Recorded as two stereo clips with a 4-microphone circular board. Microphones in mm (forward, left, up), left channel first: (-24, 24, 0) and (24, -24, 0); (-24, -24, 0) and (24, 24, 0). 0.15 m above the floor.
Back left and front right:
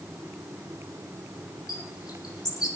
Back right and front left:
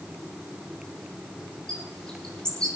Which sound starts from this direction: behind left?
A bird, at 1.7 s.